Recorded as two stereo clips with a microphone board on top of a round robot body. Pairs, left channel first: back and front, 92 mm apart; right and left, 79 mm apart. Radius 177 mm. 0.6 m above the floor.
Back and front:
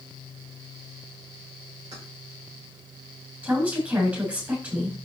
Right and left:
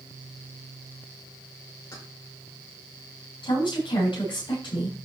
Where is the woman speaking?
75° right, 7 m.